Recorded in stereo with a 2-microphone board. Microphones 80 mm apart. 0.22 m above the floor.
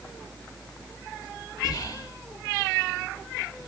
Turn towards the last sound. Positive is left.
turn(degrees=60)  # may be behind; listen again after turning